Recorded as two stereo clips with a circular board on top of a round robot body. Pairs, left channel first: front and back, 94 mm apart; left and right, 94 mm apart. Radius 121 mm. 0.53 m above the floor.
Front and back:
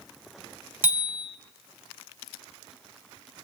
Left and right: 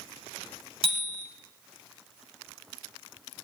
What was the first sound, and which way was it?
A bicycle bell, 110° right.